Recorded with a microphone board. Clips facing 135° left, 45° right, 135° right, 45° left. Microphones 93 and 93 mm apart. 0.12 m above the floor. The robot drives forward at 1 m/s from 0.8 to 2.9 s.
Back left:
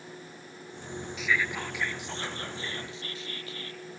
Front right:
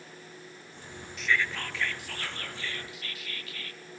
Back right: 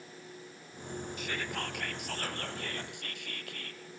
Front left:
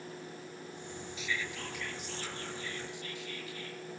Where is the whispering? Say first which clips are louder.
Front right 1 dB, even; 140° right, 1.5 m; by 3.8 s 165° right, 3 m.